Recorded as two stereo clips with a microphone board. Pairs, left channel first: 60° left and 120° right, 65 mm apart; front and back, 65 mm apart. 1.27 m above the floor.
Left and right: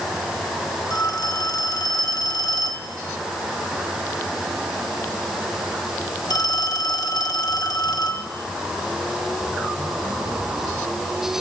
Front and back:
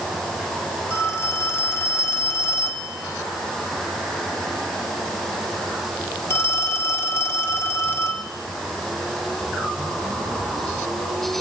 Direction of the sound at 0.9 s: 50° left.